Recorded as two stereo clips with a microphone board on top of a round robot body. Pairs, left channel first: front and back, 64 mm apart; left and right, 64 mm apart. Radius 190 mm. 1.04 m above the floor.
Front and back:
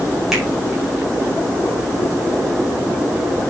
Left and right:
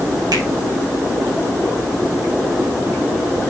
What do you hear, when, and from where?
0.3 s a finger snap: 95° right, 6 m